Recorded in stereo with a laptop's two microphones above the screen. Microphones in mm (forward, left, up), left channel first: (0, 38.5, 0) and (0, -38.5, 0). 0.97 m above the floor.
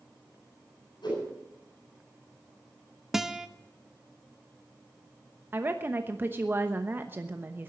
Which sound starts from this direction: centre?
A guitar, at 3.1 s.